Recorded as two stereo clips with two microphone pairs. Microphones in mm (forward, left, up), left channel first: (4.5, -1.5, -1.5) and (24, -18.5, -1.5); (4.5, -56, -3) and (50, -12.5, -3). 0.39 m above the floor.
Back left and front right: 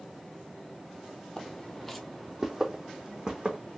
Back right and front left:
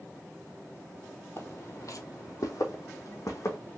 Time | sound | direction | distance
1.4 | footsteps | 170° right | 0.6 m